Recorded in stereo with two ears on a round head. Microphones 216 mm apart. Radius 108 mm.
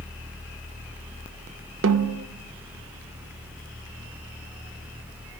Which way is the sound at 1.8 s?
55° right (ahead or behind).